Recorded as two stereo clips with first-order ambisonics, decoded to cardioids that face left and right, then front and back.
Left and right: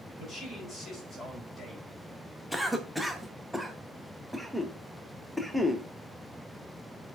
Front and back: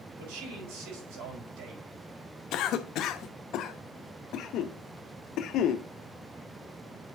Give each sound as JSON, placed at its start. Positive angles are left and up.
{"t": 0.2, "sound": "a man speaking", "azimuth_deg": 180, "distance_m": 6.0}
{"t": 2.5, "sound": "a cough", "azimuth_deg": 0, "distance_m": 0.8}